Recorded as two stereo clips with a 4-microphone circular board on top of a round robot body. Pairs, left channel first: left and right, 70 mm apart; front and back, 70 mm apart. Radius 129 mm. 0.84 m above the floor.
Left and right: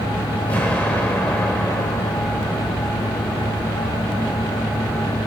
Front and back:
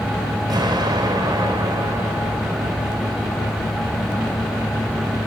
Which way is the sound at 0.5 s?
160° left.